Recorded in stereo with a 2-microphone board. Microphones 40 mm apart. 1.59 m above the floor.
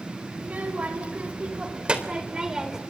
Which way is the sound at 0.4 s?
35° right (ahead or behind).